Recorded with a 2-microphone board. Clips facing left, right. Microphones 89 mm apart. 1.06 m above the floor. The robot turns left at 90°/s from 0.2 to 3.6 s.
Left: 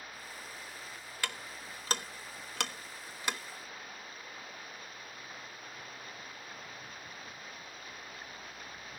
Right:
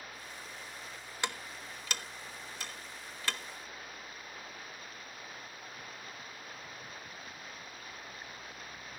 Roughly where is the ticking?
Right.